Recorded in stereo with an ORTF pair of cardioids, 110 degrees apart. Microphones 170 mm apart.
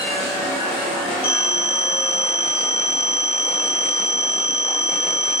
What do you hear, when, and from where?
1.2 s a phone ringing: 10° right, 3 m